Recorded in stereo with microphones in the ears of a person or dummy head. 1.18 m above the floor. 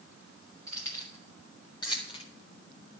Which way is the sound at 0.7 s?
20° left (ahead or behind).